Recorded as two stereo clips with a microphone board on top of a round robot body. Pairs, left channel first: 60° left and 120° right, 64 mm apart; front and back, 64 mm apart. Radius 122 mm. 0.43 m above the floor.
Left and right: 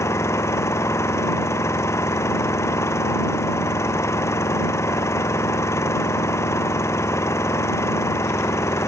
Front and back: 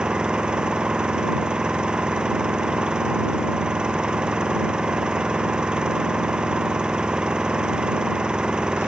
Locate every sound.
0.0 s an engine running: 100° left